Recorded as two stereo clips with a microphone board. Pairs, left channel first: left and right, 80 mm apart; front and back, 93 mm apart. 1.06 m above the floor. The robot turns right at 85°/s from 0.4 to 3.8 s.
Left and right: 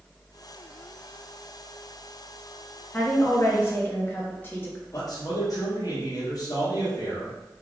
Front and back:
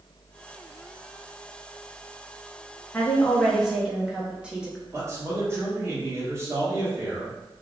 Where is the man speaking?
120° left, 1.1 m.